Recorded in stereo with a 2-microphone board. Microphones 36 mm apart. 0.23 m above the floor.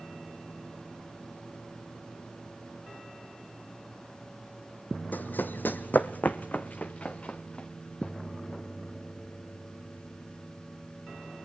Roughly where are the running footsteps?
Left.